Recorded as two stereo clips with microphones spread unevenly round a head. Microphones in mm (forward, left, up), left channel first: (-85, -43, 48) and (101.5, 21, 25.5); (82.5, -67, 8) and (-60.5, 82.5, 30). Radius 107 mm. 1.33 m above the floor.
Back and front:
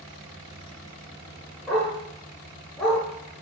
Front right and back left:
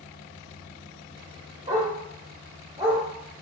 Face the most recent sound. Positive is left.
turn(degrees=125)